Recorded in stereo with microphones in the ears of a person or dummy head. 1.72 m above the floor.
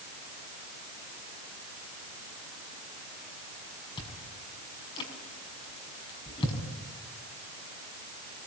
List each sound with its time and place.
4.0 s chewing: 25° left (ahead or behind), 5.5 m